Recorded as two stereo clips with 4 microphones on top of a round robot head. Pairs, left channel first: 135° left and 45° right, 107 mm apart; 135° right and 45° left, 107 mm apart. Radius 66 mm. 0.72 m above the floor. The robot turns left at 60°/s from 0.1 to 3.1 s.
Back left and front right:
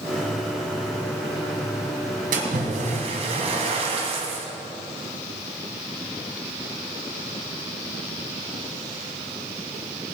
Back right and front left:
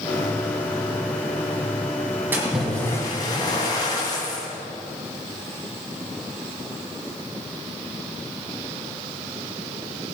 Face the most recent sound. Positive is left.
turn(degrees=-75)